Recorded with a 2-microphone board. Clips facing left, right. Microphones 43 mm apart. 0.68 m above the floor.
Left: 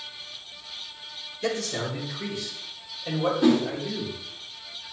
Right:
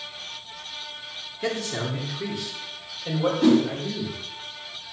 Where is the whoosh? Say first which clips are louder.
Right 3 dB; centre (ahead or behind), 2.5 m.